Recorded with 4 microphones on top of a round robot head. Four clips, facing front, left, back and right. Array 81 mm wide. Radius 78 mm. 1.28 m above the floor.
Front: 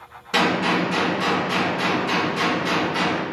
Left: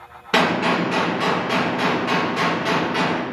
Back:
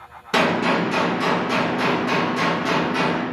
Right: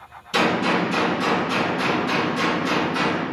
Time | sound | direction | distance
0.3 | a gunshot | 105° left | 1.6 m